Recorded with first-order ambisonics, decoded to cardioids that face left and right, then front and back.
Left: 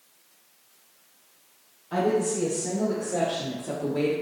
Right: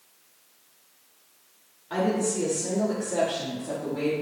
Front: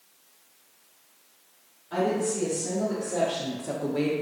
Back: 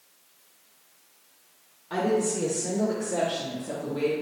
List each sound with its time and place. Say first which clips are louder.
1.9 s a woman speaking: left 2 dB, back 1 dB; 130° right, 1.4 m; by 4.1 s 35° left, 1.0 m